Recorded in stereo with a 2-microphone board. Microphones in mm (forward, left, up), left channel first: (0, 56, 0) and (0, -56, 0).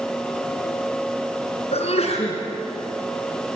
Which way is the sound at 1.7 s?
70° left (ahead or behind).